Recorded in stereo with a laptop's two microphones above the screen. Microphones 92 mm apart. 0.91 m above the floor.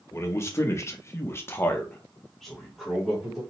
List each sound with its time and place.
0.1 s a man speaking: 30° left (ahead or behind), 1.0 m; by 3.4 s 5° right (ahead or behind), 1.1 m